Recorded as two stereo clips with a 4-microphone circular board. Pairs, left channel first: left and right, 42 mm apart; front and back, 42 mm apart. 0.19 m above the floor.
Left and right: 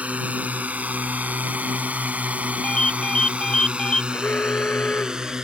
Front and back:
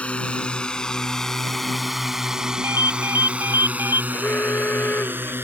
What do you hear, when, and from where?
0.0 s a drone: 50° right; by 5.4 s 165° right
2.6 s a ringtone: 160° left
4.1 s an alarm: 40° left